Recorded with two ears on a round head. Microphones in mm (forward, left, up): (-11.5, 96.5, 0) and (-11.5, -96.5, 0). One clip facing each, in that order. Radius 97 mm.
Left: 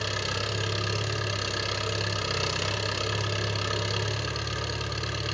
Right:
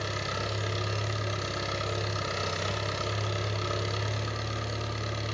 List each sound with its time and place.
0.0 s an engine running: 45° left (ahead or behind), 4.5 m